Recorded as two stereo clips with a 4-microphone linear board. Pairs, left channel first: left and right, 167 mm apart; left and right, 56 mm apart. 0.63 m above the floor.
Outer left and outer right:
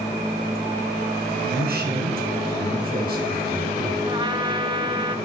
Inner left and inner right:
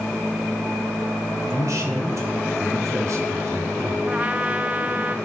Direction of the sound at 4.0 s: 30° right (ahead or behind).